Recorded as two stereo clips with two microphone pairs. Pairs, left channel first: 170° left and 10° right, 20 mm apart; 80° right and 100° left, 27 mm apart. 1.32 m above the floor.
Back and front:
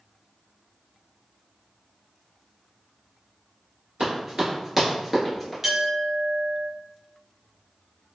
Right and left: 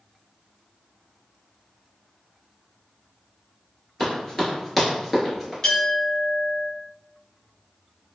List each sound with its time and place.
4.0 s running footsteps: 25° right, 1.4 m; by 5.5 s 165° left, 1.3 m
5.6 s a clink: 85° right, 0.8 m